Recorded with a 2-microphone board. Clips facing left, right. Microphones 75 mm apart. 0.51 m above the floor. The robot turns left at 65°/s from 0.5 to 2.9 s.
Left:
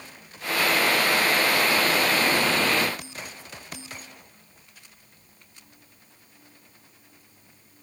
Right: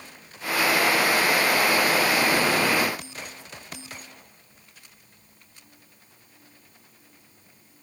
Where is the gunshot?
No gunshot in this recording.